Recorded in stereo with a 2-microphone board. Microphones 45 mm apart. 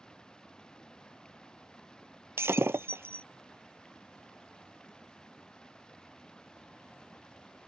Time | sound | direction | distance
0.0 | running water | 15° left (ahead or behind) | ?
2.4 | breaking glass | 70° right (ahead or behind) | ?